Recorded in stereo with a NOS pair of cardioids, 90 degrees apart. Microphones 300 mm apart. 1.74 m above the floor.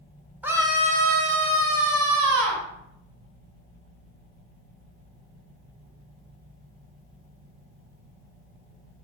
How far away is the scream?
About 1.1 m.